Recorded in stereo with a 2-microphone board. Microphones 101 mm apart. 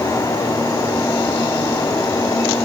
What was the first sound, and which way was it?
Only background noise.